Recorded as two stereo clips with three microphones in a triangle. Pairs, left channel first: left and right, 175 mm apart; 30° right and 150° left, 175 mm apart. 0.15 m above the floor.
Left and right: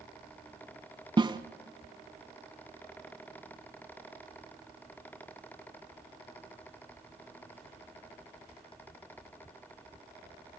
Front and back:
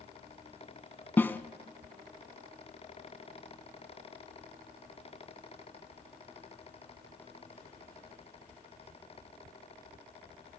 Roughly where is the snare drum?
Right.